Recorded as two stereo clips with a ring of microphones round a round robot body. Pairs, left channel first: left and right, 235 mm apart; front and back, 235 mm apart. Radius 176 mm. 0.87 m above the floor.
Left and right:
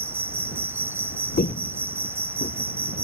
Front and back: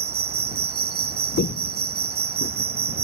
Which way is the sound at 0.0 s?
165° right.